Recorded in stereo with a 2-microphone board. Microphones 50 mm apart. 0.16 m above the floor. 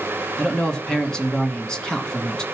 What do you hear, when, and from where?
0.4 s a man speaking: 15° left (ahead or behind), 1.3 m